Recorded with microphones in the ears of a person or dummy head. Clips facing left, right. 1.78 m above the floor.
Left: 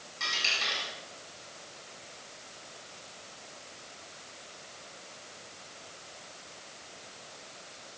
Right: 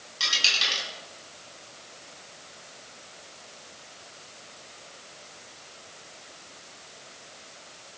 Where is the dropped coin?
45° right (ahead or behind), 6 m.